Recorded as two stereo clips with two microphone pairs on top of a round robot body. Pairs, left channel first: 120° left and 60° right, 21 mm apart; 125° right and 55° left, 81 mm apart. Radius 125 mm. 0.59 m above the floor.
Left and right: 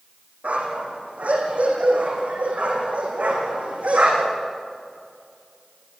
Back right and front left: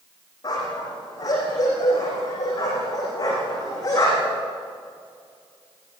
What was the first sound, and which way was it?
A dog barking, 75° right.